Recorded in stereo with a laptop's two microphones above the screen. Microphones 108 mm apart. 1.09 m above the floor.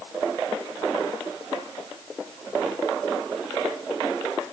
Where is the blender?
No blender in this recording.